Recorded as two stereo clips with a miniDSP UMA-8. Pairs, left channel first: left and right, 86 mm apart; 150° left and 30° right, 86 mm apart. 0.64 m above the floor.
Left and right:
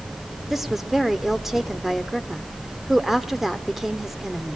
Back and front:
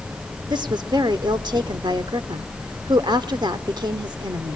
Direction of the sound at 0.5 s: 5° right.